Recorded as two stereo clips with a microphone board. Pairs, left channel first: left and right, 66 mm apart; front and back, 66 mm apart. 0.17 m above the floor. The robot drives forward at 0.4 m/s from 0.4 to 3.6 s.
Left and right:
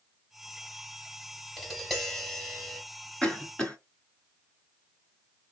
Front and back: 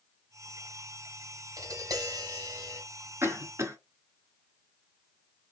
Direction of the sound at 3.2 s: 160° left.